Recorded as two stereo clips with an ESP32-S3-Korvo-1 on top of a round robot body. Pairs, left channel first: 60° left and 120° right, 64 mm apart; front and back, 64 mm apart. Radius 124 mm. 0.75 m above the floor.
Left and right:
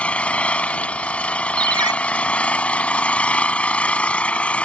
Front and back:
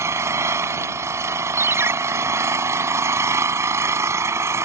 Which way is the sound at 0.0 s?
130° left.